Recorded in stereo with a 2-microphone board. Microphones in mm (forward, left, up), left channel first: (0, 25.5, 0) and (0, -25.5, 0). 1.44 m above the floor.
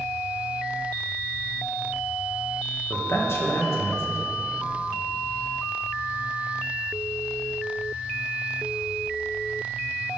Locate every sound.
2.9 s a man speaking: 55° left (ahead or behind), 1.9 m